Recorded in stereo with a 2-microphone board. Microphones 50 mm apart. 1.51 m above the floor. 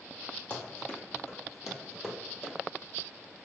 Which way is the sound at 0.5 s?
25° left (ahead or behind).